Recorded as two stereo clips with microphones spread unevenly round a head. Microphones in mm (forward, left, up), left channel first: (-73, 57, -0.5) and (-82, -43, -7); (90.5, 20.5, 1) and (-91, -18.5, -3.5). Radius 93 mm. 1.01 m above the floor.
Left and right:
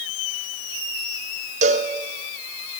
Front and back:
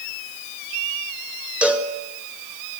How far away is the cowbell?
About 2.5 m.